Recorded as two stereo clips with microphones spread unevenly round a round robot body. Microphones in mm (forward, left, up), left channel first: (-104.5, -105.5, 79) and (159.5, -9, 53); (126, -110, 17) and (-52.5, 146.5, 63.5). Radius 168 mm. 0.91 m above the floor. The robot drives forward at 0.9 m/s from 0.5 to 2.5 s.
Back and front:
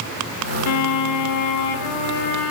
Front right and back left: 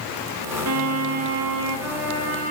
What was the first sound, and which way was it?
A violin, 170° left.